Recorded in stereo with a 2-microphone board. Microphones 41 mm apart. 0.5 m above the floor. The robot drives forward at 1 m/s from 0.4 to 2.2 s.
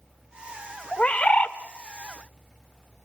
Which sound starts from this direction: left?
A bird, at 0.9 s.